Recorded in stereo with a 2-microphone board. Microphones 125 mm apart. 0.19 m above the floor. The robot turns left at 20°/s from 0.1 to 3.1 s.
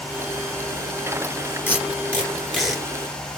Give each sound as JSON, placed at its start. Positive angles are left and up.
{"t": 1.7, "sound": "tape being pulled", "side_deg": 15, "distance_m": 1.5}